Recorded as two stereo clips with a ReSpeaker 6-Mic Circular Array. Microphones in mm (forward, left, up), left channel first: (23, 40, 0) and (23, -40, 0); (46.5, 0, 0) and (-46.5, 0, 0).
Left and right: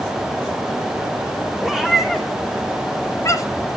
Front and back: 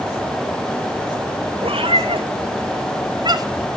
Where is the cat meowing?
175° right, 3.5 m; by 3.7 s 125° left, 2 m.